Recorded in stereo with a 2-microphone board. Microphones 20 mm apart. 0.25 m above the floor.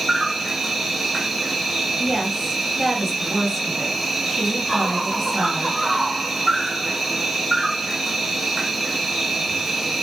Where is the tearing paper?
No tearing paper in this recording.